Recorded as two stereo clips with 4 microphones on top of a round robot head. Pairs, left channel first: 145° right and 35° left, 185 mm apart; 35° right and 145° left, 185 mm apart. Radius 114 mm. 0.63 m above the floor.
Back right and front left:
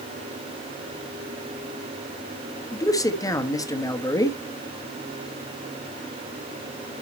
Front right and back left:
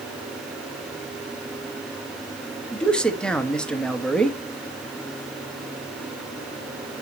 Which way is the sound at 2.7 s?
115° right.